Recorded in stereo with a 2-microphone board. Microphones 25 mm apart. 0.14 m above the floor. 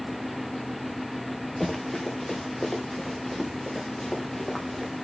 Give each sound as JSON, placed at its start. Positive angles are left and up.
{"t": 1.6, "sound": "running footsteps", "side_deg": 15, "distance_m": 3.0}